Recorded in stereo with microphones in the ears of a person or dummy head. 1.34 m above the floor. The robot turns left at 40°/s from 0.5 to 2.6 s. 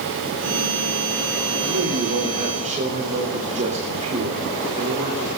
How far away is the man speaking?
About 4 m.